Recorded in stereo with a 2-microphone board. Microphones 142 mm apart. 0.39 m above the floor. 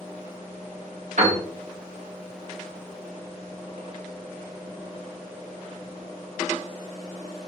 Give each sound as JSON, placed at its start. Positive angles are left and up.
{"t": 1.2, "sound": "a piano", "side_deg": -55, "distance_m": 0.9}